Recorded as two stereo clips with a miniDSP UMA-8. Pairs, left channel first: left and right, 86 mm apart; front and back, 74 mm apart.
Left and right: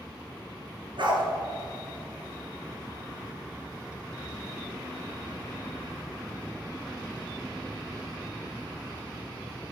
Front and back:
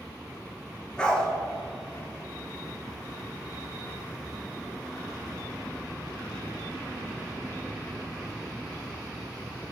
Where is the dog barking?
80° right, 1.1 m.